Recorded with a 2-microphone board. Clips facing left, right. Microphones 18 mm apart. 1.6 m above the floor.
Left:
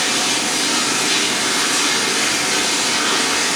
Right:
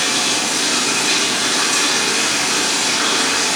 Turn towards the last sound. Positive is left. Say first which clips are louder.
# right 1 dB
turn(degrees=-50)  # may be behind; listen again after turning